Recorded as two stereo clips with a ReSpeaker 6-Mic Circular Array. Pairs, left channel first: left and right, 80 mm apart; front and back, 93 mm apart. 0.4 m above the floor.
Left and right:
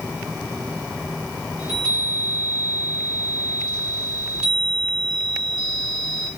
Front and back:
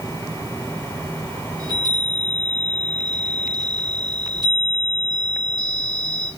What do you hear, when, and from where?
1.6 s a chime: 170° right, 1.8 m